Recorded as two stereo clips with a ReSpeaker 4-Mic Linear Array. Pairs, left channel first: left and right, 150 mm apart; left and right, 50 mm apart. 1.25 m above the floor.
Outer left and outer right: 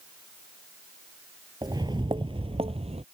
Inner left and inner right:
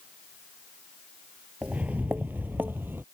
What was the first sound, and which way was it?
Footsteps, 25° right (ahead or behind).